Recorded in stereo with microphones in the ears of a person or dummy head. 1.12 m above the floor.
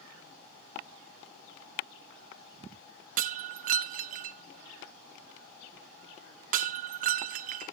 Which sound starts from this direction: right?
Breaking glass, at 3.2 s.